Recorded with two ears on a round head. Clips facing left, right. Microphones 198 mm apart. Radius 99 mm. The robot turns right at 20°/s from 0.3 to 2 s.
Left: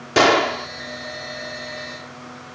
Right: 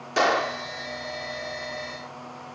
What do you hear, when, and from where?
0.2 s a gunshot: 70° left (ahead or behind); by 0.7 s 75° left (ahead or behind)